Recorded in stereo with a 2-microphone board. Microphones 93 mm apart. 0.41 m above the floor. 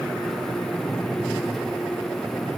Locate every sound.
Only background noise.